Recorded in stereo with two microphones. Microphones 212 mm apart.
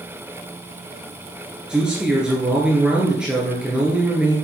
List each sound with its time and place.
1.7 s a man speaking: 5° right (ahead or behind), 2.5 m